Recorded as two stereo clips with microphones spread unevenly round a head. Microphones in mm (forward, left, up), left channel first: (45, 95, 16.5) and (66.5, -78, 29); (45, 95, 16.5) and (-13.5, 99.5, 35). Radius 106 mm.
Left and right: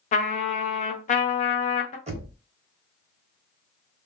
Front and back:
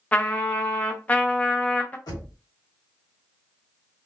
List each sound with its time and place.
0.1 s a trumpet: 75° left, 0.5 m
2.1 s knocking: 30° right, 0.9 m